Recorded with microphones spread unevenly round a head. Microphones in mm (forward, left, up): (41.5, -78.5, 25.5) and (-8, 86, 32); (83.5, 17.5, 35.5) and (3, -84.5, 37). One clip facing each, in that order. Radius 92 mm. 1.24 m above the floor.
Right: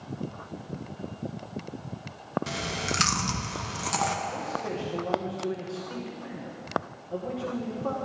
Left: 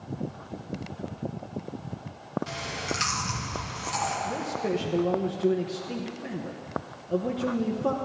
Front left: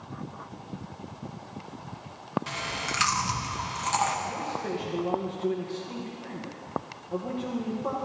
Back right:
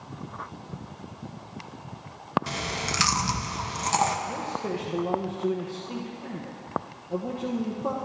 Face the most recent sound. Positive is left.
turn(degrees=155)